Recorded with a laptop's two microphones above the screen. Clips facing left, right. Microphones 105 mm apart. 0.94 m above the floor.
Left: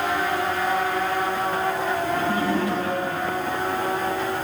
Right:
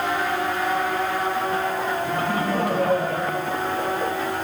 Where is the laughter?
55° right (ahead or behind), 6 m; by 4.1 s 60° right (ahead or behind), 5 m.